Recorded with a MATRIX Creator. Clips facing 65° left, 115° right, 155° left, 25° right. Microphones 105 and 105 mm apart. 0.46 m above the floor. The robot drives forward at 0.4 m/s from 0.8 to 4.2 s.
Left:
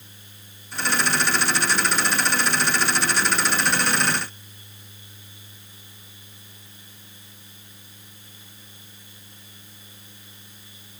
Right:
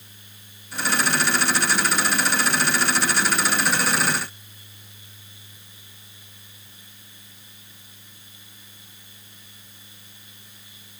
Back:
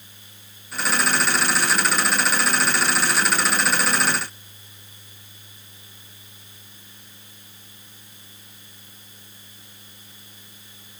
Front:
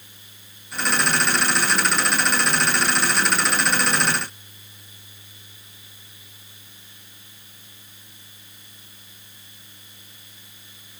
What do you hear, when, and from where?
Only background noise.